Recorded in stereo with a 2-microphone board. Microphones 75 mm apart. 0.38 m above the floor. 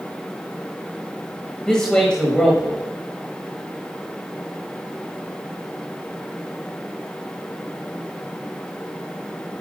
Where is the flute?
No flute in this recording.